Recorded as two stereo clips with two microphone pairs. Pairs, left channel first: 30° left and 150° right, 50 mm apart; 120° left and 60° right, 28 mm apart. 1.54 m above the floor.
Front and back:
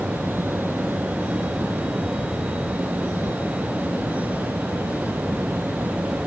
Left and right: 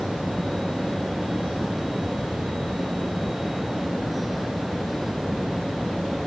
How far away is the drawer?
No drawer in this recording.